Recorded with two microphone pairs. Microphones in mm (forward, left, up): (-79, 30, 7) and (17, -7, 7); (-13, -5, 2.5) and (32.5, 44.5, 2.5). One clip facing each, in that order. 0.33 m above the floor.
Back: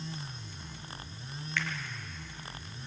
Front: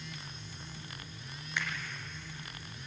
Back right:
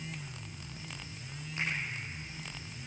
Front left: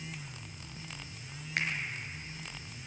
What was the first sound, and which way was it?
A finger snap, 50° left.